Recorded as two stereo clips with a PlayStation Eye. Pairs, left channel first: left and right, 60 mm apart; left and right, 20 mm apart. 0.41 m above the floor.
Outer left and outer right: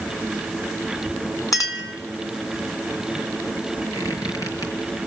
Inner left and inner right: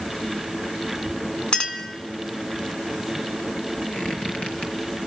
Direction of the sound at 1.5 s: 60° left (ahead or behind).